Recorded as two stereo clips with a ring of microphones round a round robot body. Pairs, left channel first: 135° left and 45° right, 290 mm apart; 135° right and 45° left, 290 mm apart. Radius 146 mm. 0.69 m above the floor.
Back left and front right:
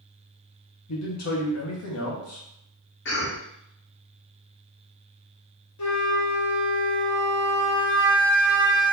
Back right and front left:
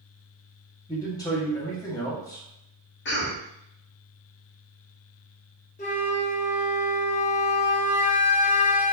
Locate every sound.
0.9 s a man speaking: 150° left, 1.2 m
3.0 s a cough: straight behind, 1.2 m
5.8 s a flute: 160° left, 0.9 m